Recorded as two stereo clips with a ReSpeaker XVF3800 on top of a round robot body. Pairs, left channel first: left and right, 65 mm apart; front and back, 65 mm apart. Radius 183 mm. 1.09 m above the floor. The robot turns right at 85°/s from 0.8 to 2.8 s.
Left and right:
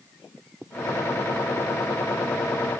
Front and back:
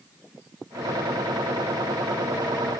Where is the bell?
No bell in this recording.